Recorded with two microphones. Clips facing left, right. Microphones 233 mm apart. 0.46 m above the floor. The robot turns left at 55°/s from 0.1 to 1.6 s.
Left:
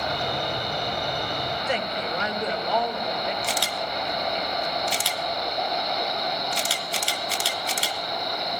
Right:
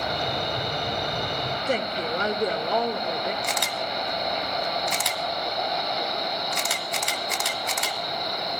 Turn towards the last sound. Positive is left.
turn(degrees=30)  # may be behind; listen again after turning